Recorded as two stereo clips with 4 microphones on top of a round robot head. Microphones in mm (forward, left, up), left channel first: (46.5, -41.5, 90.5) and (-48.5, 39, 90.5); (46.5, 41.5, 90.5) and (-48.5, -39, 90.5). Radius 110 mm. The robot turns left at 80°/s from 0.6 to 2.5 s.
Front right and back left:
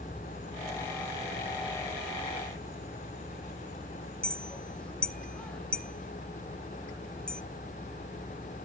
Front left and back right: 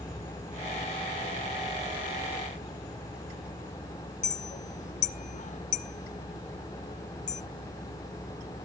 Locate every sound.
4.2 s a clink: 40° left, 0.6 m